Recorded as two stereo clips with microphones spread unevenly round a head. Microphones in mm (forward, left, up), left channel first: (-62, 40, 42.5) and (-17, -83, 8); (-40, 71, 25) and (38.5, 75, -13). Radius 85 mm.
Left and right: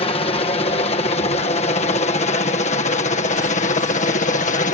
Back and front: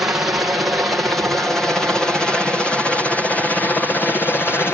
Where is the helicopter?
60° left; by 4.7 s 105° left.